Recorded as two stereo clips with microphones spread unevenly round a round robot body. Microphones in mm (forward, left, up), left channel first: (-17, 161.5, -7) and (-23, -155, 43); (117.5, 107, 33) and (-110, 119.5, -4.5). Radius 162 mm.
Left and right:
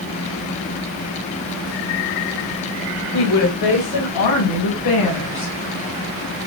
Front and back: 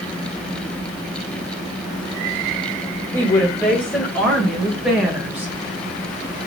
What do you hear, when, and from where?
3.1 s a woman speaking: 80° left, 4.5 m; by 5.5 s 95° left, 3.5 m